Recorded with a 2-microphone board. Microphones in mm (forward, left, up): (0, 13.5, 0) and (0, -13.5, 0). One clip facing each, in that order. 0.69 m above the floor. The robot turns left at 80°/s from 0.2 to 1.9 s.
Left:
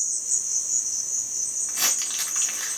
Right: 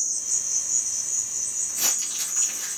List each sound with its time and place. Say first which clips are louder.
0.0 s an insect: even; 150° right, 0.8 m; by 2.8 s 75° left, 0.8 m
1.7 s crumpling: left 2 dB; 75° left (ahead or behind), 2.5 m; by 2.8 s 60° left (ahead or behind), 2.5 m